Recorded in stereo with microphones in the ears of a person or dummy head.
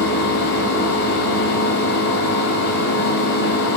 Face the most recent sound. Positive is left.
turn(degrees=55)  # may be behind; listen again after turning